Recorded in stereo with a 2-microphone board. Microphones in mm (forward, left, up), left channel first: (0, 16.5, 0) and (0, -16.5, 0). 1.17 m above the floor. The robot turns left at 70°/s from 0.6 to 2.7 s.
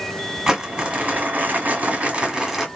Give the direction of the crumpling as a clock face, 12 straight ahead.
1 o'clock.